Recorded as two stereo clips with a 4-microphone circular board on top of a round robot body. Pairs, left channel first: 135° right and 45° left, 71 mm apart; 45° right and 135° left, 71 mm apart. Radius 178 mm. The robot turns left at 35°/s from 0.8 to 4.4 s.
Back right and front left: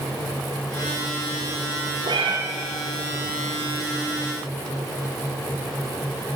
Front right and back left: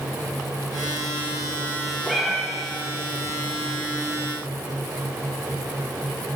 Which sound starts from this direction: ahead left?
A cat meowing, at 2.1 s.